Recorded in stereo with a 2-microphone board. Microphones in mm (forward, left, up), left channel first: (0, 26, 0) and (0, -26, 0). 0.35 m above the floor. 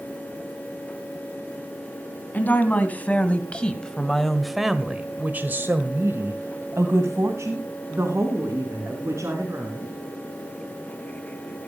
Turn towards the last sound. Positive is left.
turn(degrees=-60)  # may be behind; listen again after turning